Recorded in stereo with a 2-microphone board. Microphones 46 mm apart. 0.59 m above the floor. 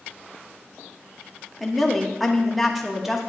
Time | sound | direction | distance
1.6 | a woman speaking | centre (ahead or behind) | 1.1 m